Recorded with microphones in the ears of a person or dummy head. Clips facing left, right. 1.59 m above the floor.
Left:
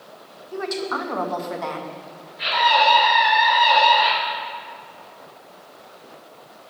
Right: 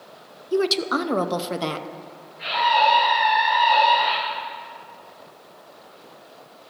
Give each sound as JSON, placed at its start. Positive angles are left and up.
{"t": 0.5, "sound": "a woman speaking", "side_deg": -50, "distance_m": 0.6}
{"t": 2.4, "sound": "a scream", "side_deg": 75, "distance_m": 3.5}